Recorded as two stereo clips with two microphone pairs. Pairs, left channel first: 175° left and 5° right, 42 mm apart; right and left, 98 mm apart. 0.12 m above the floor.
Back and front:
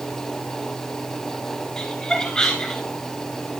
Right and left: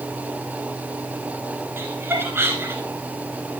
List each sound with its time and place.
1.8 s laughter: 130° left, 1.2 m